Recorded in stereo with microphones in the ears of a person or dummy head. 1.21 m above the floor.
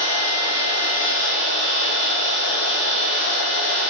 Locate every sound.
0.0 s a machine running: 85° left, 3.5 m